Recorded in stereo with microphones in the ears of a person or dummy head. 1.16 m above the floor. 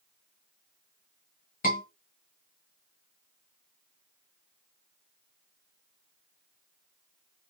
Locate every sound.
1.6 s a scream: 45° left (ahead or behind), 1.6 m